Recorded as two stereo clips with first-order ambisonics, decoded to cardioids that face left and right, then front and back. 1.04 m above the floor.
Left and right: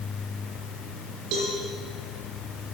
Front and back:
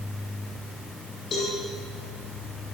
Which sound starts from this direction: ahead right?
A cowbell, at 1.3 s.